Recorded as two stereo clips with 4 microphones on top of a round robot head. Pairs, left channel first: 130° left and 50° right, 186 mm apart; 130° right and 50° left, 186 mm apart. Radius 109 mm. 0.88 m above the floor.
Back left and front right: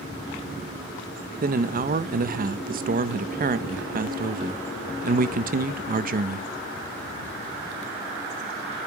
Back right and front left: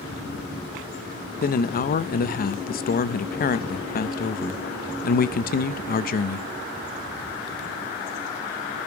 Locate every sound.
1.4 s a man speaking: 90° right, 0.5 m